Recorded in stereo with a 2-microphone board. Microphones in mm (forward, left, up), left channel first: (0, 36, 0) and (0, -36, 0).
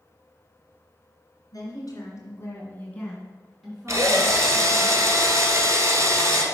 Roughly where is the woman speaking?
Left.